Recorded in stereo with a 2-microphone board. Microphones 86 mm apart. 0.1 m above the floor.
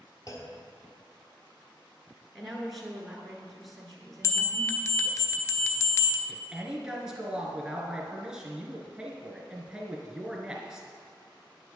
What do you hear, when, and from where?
0.3 s a clunk: 45° left (ahead or behind), 1.4 m
2.4 s a woman speaking: centre (ahead or behind), 1.4 m
4.2 s a bell: 35° left (ahead or behind), 0.6 m
6.3 s a man speaking: 10° right (ahead or behind), 1.1 m